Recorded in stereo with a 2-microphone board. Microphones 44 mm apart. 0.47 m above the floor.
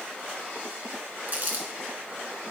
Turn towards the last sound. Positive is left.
turn(degrees=-40)  # may be behind; listen again after turning